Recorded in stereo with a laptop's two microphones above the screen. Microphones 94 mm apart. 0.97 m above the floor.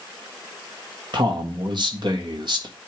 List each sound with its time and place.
1.1 s a man speaking: 60° right (ahead or behind), 1.4 m